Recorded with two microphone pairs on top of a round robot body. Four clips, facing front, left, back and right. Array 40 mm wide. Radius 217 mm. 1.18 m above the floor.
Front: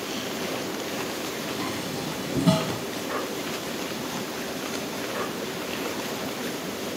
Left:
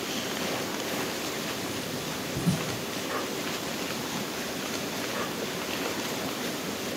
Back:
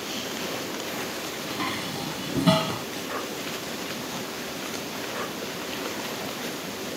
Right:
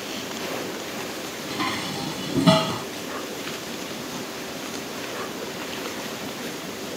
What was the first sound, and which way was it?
Dishes clattering, 105° right.